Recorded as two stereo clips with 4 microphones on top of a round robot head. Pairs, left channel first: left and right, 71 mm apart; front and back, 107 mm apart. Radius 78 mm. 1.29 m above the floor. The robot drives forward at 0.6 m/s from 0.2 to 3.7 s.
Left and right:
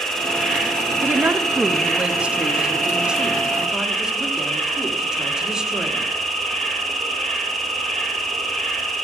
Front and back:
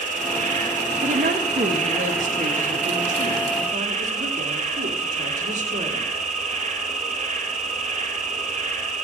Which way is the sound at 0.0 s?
170° left.